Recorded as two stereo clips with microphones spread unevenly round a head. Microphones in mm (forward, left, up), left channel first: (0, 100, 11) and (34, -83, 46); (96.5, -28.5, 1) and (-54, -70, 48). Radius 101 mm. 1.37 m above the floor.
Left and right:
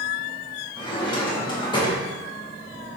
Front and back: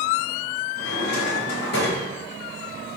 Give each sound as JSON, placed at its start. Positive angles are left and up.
{"t": 0.8, "sound": "a drawer", "azimuth_deg": 30, "distance_m": 1.9}